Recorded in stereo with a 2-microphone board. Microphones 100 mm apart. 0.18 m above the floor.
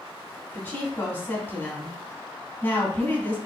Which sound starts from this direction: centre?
A woman speaking, at 0.5 s.